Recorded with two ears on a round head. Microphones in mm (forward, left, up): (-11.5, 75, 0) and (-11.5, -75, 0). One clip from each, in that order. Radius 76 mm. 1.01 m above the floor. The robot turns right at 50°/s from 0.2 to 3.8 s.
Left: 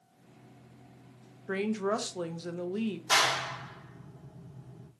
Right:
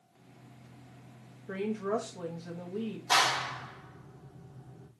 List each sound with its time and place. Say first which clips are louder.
1.5 s a woman speaking: left 2 dB; 55° left, 0.5 m; by 3.0 s 130° left, 0.5 m
3.1 s a clap: even; 15° left (ahead or behind), 0.8 m; by 4.9 s 20° right (ahead or behind), 0.8 m